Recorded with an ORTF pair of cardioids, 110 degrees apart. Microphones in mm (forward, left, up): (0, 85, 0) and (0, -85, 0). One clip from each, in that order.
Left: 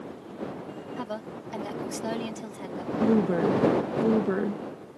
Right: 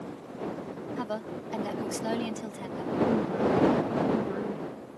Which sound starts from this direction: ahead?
A woman speaking, at 1.0 s.